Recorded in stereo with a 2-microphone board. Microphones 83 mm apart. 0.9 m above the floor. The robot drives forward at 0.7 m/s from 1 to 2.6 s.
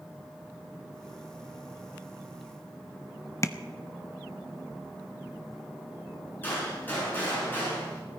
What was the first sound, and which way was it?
Tapping, 35° left (ahead or behind).